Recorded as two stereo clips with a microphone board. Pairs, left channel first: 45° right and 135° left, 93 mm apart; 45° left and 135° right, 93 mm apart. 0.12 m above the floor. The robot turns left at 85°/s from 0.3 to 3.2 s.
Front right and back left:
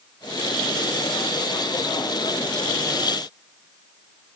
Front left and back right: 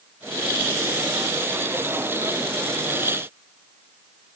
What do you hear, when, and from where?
Only background noise.